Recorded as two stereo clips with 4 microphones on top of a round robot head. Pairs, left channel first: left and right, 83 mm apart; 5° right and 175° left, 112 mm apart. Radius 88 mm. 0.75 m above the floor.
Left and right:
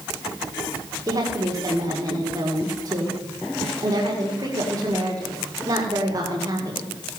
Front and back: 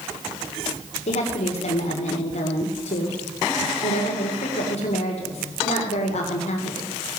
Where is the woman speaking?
35° right, 1.9 m.